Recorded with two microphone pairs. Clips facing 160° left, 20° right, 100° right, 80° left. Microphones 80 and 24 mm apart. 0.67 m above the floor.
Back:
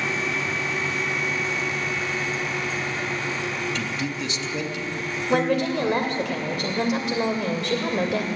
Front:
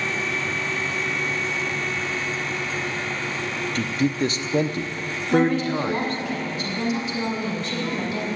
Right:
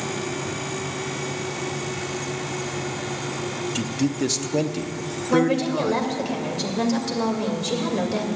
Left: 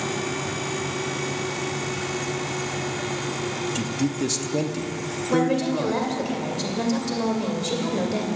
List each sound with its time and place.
3.8 s a man speaking: 35° right, 0.7 m
5.3 s a woman speaking: straight behind, 2.5 m